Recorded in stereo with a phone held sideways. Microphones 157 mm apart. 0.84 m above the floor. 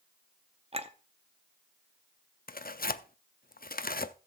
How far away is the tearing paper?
About 0.5 m.